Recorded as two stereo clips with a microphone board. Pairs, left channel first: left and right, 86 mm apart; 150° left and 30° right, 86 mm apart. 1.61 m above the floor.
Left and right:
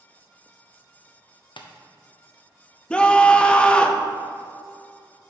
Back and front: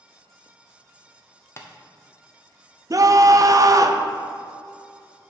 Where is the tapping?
95° left, 0.7 m.